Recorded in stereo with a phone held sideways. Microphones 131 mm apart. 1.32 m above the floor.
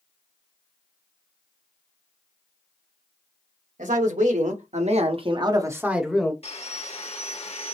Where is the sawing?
50° left (ahead or behind), 1.1 m.